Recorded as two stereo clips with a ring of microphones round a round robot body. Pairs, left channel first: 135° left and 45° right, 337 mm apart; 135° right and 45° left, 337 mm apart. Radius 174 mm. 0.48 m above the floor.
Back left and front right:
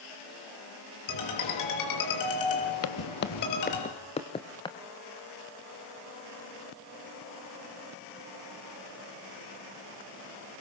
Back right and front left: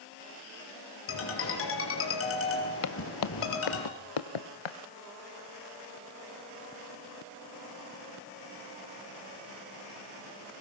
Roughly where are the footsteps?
Behind.